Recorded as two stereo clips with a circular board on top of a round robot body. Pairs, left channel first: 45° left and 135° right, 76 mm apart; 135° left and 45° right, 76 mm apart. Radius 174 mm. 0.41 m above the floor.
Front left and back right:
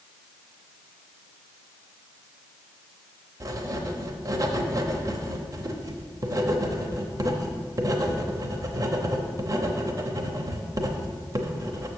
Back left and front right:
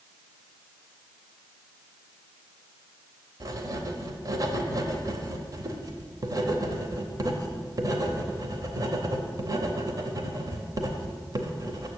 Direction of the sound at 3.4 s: 90° right.